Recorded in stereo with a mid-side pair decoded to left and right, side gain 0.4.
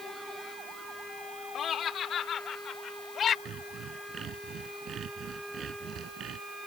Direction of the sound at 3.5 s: 65° right.